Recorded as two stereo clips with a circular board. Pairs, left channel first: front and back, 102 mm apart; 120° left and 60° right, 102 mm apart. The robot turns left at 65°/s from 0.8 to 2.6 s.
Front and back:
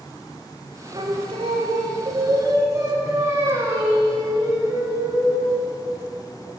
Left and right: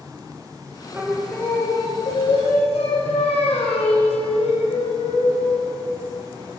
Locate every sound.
0.9 s singing: 135° right, 1.9 m; by 5.7 s 120° left, 1.9 m